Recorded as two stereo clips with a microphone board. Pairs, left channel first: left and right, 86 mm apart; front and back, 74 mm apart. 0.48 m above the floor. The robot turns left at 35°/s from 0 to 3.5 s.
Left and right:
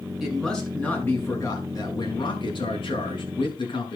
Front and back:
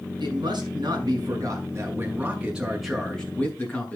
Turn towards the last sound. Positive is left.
turn(degrees=65)